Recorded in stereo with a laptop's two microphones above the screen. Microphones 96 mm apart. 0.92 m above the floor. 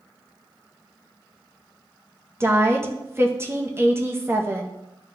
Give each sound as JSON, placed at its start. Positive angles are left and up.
{"t": 2.4, "sound": "a woman speaking", "side_deg": -25, "distance_m": 0.7}